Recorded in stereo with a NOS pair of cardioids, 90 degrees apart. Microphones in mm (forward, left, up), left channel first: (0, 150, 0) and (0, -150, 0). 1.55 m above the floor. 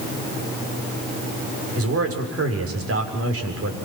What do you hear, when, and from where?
1.8 s a man speaking: 45° right, 6.5 m